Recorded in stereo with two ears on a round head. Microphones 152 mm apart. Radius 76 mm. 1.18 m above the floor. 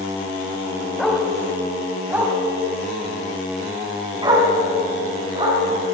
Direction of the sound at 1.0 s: Centre (ahead or behind).